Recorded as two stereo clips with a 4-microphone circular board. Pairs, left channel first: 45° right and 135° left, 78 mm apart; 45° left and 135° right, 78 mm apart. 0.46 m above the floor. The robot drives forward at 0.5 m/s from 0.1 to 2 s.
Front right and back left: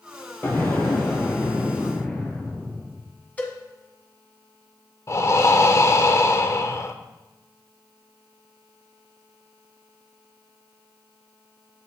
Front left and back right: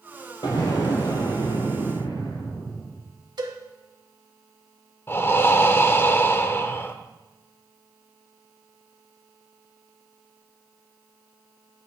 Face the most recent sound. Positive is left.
turn(degrees=-5)